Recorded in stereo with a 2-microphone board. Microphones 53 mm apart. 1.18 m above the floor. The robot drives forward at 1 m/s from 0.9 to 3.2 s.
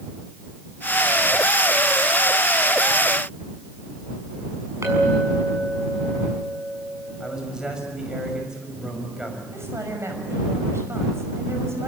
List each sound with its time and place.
4.8 s a clink: 65° right (ahead or behind), 7 m
7.2 s a man speaking: 15° right (ahead or behind), 6.5 m
9.5 s a woman speaking: 60° right (ahead or behind), 6 m